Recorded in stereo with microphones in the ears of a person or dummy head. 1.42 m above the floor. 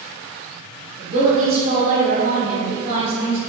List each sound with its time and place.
1.0 s a woman speaking: 35° right (ahead or behind), 1.4 m